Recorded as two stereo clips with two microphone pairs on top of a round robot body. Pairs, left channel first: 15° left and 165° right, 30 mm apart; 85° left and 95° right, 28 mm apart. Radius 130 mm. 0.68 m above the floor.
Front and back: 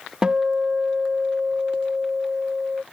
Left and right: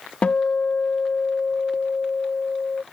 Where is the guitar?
125° left.